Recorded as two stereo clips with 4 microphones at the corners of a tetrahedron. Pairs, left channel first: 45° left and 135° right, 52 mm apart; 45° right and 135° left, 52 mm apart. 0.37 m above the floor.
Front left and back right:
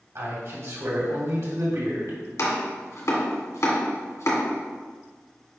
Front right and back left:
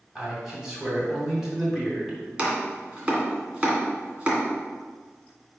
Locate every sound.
0.1 s a man speaking: 145° right, 2.5 m
2.4 s chopping: 65° left, 2.0 m